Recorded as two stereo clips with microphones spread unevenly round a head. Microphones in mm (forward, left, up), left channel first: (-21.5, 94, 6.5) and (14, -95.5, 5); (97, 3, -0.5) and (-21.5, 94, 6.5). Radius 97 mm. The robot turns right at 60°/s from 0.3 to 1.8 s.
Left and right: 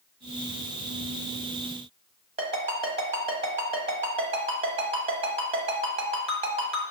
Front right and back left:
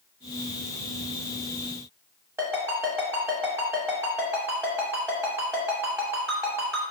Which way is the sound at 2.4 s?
140° right.